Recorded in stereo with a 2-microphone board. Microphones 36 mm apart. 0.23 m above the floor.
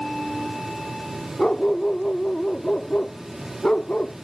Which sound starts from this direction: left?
A dog barking, at 1.4 s.